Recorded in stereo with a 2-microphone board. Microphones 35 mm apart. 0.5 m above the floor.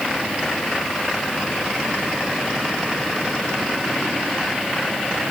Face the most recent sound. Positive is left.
No sound to turn to.